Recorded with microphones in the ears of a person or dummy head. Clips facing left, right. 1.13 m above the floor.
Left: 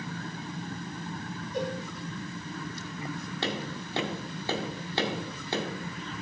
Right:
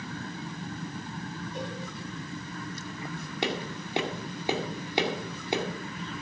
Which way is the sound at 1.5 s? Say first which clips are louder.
Left 7 dB; 75° left (ahead or behind).